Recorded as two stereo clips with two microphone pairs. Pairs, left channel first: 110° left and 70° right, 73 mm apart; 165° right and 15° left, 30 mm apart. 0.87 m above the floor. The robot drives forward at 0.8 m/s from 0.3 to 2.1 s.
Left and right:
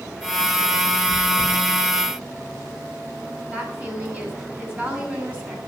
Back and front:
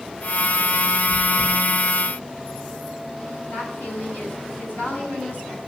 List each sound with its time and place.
1.1 s chewing: 165° right, 3.5 m
3.5 s a woman speaking: 140° right, 5.5 m